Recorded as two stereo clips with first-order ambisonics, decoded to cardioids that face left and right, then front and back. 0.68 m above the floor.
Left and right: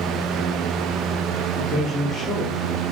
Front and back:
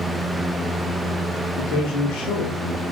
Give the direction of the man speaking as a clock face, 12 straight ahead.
12 o'clock.